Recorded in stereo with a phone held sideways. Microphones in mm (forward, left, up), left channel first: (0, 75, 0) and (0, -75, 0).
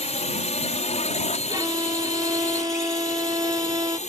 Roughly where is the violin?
Right.